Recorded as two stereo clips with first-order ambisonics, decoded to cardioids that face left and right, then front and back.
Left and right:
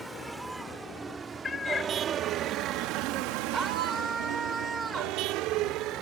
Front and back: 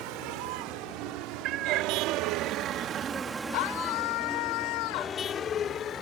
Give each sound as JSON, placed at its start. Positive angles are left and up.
{"t": 0.0, "sound": "a vehicle", "azimuth_deg": 180}
{"t": 1.4, "sound": "a cat meowing", "azimuth_deg": 155}
{"t": 3.5, "sound": "a scream", "azimuth_deg": -10}